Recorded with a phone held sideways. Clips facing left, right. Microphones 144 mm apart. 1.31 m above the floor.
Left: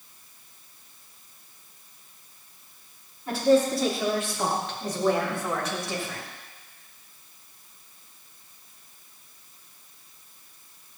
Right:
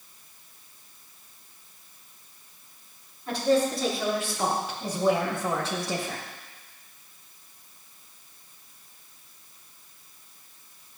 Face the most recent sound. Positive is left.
turn(degrees=-45)  # may be behind; listen again after turning